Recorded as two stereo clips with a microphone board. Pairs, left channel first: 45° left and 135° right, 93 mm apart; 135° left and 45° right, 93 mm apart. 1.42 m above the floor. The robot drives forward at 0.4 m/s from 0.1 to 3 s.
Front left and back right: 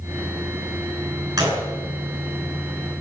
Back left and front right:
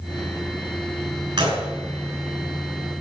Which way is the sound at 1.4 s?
90° right.